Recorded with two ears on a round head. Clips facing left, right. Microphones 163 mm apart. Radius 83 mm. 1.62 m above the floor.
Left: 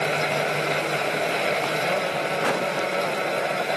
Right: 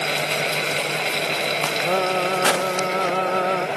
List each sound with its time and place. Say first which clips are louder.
1.9 s singing: right 4 dB; 80° right